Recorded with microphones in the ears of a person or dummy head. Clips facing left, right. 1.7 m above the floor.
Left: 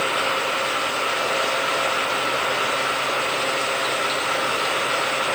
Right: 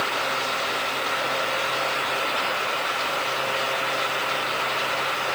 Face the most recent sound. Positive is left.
No sound to turn to.